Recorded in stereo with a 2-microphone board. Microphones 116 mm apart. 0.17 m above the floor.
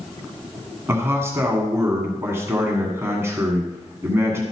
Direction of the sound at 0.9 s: 20° right (ahead or behind).